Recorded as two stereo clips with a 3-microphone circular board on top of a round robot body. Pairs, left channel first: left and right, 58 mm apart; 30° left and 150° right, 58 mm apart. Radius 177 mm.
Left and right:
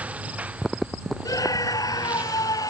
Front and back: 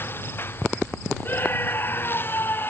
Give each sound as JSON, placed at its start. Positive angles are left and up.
{"t": 0.0, "sound": "a lawn mower", "azimuth_deg": -20}
{"t": 1.2, "sound": "a scream", "azimuth_deg": 85}